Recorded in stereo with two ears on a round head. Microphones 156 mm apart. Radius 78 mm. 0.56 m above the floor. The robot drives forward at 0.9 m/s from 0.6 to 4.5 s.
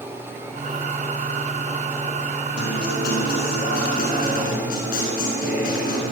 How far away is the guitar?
About 5.5 m.